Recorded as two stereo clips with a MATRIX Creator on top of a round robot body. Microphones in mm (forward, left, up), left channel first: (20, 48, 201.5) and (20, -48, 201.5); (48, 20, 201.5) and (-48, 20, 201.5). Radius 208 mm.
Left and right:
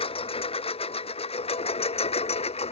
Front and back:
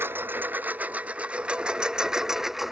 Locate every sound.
0.0 s a lawn mower: 110° left; by 2.7 s 90° left